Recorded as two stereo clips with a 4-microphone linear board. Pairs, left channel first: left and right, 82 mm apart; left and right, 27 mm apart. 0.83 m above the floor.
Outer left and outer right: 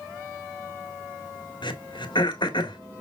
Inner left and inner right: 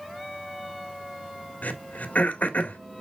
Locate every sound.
1.6 s throat clearing: 70° left (ahead or behind), 1.7 m